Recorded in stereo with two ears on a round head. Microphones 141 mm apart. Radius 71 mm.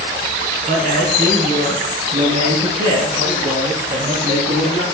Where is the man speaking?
65° right (ahead or behind), 4 m; by 4.8 s 55° right (ahead or behind), 6 m.